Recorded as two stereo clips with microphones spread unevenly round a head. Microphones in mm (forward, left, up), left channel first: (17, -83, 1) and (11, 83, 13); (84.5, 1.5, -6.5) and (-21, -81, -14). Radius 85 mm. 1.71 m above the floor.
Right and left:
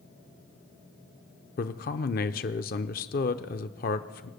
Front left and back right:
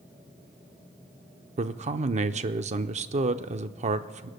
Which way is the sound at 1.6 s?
120° right.